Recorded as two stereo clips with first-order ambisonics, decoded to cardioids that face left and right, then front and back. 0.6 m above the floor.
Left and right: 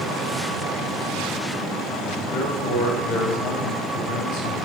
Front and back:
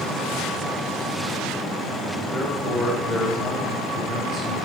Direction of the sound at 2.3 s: 80° left.